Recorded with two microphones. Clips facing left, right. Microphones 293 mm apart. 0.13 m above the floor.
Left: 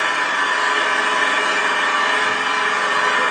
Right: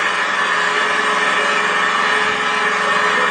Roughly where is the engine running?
Right.